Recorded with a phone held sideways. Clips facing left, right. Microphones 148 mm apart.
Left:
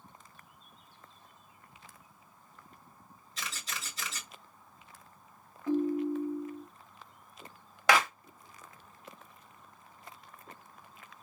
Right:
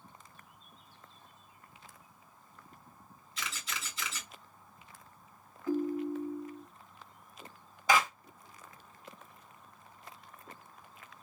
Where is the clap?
80° left, 1.2 m.